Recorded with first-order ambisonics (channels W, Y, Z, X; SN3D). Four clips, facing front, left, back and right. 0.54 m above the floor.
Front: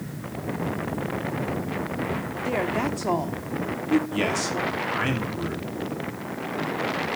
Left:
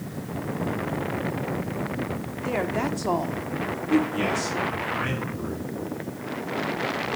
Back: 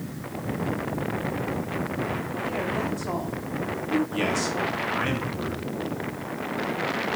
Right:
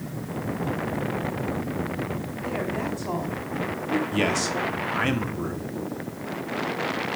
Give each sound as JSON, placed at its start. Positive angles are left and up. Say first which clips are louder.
{"t": 2.5, "sound": "a woman speaking", "louder": "left 3 dB, front 4 dB", "azimuth_deg": 45, "distance_m": 1.2}
{"t": 4.1, "sound": "a man speaking", "louder": "right 2 dB, front 1 dB", "azimuth_deg": -75, "distance_m": 1.3}